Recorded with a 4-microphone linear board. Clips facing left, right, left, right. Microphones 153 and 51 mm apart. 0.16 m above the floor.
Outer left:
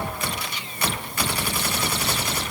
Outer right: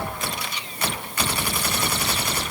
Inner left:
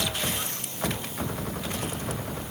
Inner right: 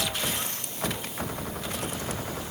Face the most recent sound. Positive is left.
No sound to turn to.